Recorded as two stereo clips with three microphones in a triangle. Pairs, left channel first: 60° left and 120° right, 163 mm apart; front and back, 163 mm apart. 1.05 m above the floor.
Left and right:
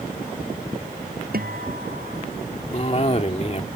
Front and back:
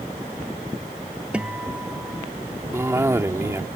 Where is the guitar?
95° right.